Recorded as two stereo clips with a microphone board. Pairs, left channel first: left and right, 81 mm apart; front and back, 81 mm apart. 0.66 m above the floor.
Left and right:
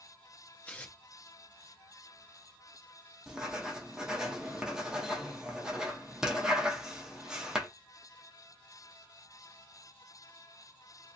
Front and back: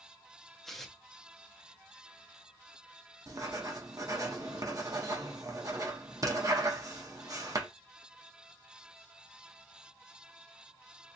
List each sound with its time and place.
0.7 s tearing paper: 85° left, 0.7 m
3.3 s writing: 165° right, 0.8 m